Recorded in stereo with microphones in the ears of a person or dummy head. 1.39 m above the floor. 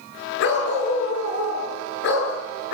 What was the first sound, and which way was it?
A dog barking, 60° left (ahead or behind).